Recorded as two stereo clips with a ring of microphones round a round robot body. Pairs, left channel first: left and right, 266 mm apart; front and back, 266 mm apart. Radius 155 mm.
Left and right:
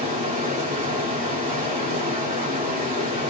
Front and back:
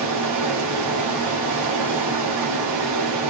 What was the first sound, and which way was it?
Running water, 160° right.